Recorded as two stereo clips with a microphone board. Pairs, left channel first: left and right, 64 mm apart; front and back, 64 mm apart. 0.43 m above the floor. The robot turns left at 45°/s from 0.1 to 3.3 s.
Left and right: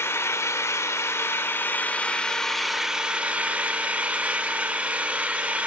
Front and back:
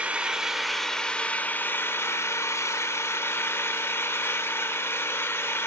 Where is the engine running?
115° left, 0.8 m; by 5.7 s 30° right, 0.8 m.